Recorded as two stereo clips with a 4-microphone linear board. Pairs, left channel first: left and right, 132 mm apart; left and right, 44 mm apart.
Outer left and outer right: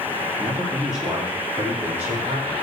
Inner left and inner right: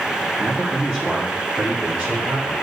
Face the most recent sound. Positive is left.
turn(degrees=-20)  # may be behind; listen again after turning